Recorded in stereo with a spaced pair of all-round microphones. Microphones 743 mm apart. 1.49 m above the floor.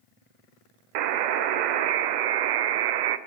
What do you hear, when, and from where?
0.9 s a buzzer: 75° right (ahead or behind), 0.5 m